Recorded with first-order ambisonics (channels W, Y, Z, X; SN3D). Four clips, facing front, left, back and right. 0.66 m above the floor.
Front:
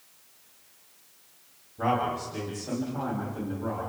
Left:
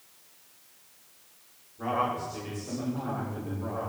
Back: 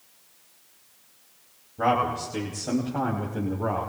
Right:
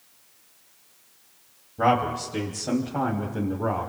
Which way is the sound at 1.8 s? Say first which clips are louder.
Right 7 dB, back 3 dB; 110° right.